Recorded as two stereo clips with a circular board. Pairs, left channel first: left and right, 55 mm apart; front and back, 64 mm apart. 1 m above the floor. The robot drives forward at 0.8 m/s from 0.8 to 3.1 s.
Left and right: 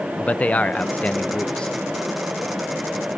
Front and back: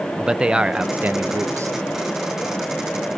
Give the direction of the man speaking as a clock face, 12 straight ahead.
8 o'clock.